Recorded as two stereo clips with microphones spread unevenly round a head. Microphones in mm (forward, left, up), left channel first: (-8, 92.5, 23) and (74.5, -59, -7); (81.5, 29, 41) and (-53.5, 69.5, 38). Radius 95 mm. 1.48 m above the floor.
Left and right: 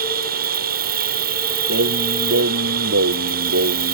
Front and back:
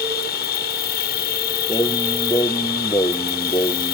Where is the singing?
85° right.